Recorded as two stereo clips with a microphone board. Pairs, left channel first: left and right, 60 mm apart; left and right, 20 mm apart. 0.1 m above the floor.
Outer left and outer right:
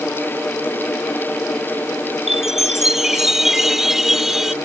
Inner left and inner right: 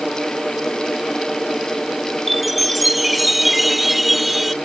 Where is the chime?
5° right (ahead or behind).